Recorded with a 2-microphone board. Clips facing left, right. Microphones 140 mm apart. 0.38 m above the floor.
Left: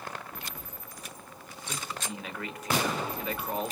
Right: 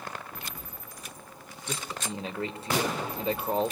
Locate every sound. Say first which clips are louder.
1.7 s a man speaking: right 2 dB; 30° right (ahead or behind), 1.5 m